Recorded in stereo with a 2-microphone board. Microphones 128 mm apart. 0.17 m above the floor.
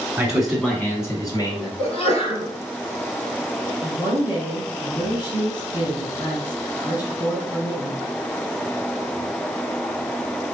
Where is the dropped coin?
I don't hear a dropped coin.